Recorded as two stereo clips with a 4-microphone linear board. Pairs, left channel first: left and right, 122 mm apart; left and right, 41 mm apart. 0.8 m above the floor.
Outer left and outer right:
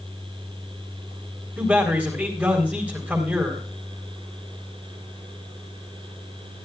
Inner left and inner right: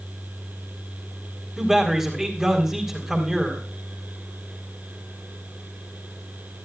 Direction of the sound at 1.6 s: 15° right (ahead or behind).